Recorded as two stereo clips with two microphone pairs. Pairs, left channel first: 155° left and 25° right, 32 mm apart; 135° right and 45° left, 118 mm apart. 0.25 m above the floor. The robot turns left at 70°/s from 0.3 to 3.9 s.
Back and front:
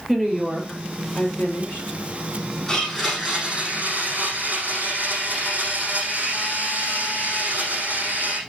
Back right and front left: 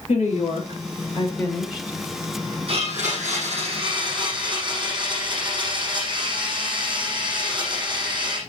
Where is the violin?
I don't hear a violin.